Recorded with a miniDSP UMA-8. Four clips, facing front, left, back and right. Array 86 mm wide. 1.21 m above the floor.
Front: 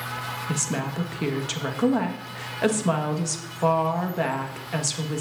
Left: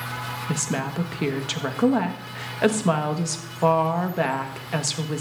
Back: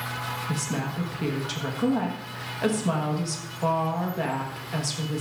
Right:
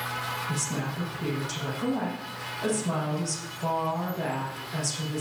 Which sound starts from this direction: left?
A woman speaking, at 0.5 s.